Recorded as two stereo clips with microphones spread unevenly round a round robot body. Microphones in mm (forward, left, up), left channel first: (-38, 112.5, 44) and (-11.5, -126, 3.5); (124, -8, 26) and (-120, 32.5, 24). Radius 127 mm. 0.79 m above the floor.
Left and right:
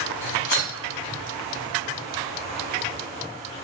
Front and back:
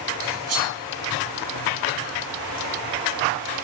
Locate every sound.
0.2 s cutlery clinking: 140° left, 1.1 m